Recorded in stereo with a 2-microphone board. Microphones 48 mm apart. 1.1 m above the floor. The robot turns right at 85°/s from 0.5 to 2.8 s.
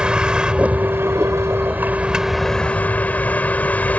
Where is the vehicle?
160° right; by 4.0 s 35° left.